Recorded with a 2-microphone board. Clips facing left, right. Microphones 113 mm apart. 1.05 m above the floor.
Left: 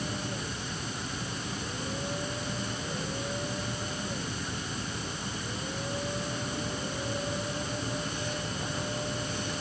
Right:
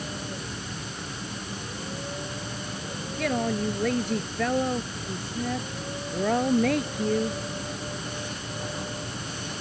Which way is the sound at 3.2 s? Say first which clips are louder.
Right 9 dB; 80° right.